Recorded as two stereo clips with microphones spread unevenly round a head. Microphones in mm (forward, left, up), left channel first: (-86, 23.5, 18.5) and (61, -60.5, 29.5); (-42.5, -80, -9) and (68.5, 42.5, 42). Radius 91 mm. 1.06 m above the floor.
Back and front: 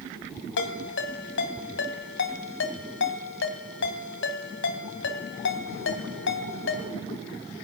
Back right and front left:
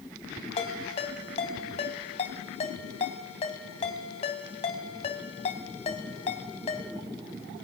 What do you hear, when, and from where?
0.6 s a ringtone: 165° left, 2.5 m